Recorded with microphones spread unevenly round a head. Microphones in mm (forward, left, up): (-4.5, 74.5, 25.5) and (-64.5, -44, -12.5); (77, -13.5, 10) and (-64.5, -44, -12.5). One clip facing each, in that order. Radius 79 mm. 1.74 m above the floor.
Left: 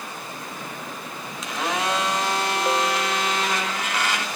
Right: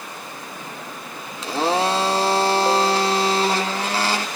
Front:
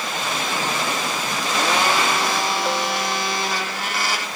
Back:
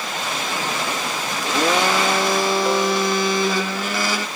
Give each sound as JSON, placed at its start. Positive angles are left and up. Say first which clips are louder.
{"t": 1.4, "sound": "a blender", "louder": "right 6 dB, back 2 dB", "azimuth_deg": -175, "distance_m": 0.8}